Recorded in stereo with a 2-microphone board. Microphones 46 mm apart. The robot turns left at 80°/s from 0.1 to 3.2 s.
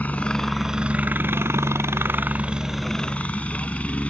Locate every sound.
0.0 s a helicopter: 40° left; by 4.1 s 150° left